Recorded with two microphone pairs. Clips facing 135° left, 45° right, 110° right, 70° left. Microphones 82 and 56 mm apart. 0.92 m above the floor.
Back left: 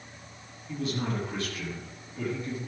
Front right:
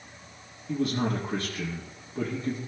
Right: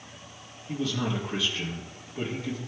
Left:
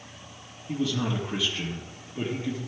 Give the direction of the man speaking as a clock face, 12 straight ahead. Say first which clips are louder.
Front right 4 dB, left 1 dB; 12 o'clock.